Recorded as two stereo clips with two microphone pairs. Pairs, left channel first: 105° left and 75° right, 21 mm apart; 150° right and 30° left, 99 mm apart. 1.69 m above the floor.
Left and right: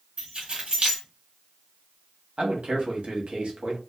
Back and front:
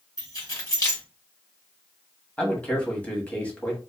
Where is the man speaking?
75° right, 1.0 m.